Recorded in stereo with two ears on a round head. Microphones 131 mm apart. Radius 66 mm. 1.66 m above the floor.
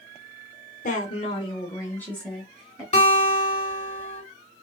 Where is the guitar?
45° left (ahead or behind), 2 m.